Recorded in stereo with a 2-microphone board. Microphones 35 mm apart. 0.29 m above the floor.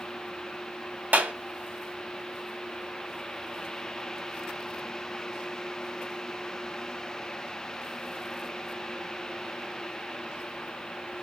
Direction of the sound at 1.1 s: 55° right (ahead or behind).